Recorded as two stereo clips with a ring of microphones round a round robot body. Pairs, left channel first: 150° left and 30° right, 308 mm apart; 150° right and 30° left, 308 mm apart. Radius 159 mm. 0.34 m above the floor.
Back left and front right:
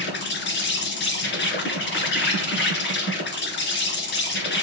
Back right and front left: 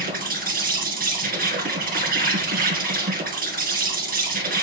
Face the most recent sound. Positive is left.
turn(degrees=95)